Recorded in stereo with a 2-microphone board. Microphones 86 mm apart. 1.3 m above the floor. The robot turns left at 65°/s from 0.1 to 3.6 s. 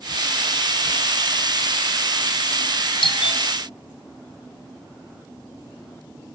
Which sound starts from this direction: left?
A doorbell, at 3.0 s.